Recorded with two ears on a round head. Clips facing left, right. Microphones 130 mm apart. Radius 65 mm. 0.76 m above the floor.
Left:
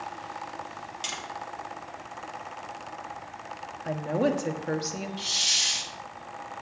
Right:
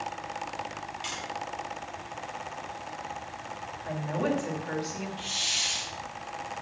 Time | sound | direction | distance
1.0 | tapping | 55° left (ahead or behind) | 1.9 m
3.9 | a woman speaking | 45° left (ahead or behind) | 1.1 m
5.2 | a hiss | 45° left (ahead or behind) | 0.9 m